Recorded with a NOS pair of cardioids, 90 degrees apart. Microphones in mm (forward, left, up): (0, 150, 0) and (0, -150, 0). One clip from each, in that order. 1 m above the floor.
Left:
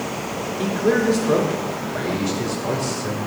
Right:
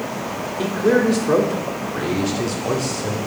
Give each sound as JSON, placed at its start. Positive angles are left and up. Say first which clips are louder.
{"t": 0.6, "sound": "a man speaking", "louder": "right 2 dB", "azimuth_deg": -20, "distance_m": 2.5}